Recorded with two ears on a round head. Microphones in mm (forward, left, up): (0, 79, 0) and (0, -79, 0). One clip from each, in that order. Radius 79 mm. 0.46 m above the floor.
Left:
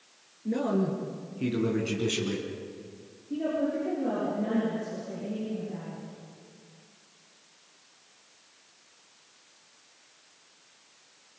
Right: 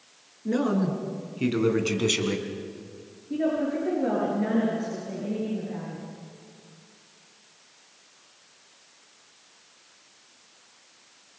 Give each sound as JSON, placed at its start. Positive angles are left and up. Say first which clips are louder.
{"t": 0.5, "sound": "a man speaking", "louder": "right 2 dB", "side_deg": -40, "distance_m": 5.0}
{"t": 3.3, "sound": "a woman speaking", "louder": "right 3 dB", "side_deg": -50, "distance_m": 7.0}